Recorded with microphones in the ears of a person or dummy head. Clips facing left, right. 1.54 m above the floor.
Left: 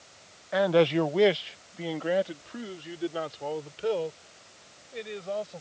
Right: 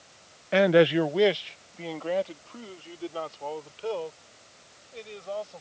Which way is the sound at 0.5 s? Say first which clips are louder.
Right 3 dB; 40° right (ahead or behind).